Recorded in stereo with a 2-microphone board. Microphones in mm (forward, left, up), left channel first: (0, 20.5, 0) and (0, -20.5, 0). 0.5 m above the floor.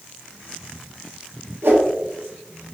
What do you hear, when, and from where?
1.6 s a whoosh: 80° right, 1.6 m